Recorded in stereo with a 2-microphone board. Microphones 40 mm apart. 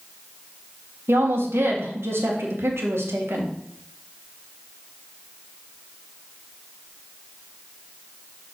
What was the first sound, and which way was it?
A woman speaking, 85° right.